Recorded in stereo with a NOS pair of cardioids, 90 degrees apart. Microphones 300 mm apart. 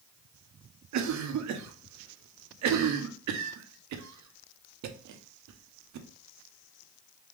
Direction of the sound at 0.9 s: 70° right.